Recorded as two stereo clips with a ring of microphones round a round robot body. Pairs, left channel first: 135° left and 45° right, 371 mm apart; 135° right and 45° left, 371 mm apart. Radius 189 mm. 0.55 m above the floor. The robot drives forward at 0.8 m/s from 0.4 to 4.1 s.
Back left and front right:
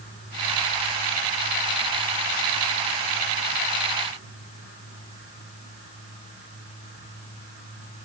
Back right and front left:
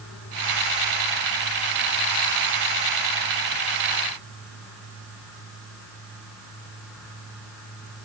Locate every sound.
Only background noise.